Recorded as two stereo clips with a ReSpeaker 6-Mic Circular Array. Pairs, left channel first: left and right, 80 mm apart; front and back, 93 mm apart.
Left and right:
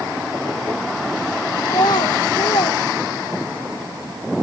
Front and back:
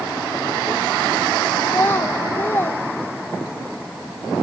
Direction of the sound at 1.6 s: 65° left.